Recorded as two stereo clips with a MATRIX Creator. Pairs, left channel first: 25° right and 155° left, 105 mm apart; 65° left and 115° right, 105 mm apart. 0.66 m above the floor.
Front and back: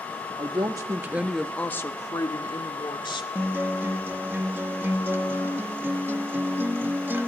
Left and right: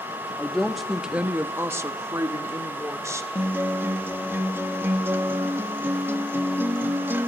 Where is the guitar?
155° right, 0.9 m.